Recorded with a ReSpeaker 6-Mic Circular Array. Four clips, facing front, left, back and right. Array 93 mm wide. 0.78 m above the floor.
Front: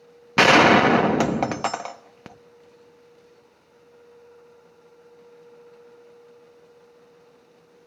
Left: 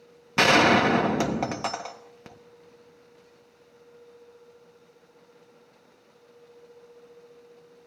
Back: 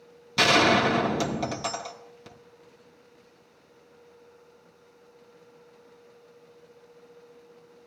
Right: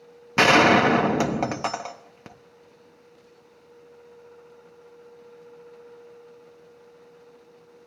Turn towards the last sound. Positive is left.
turn(degrees=-10)